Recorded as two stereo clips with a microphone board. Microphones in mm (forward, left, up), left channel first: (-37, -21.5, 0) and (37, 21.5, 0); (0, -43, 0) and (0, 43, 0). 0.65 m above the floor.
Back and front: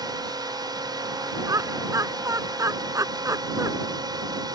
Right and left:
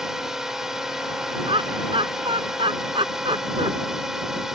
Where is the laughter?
80° left.